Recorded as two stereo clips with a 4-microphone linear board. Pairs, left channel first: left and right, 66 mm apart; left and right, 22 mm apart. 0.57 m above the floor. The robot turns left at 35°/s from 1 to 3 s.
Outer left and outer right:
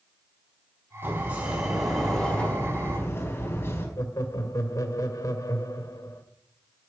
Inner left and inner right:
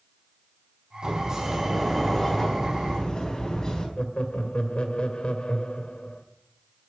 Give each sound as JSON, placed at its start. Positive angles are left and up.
{"t": 1.0, "sound": "a sliding door", "azimuth_deg": -150, "distance_m": 4.0}
{"t": 4.0, "sound": "laughter", "side_deg": 60, "distance_m": 2.0}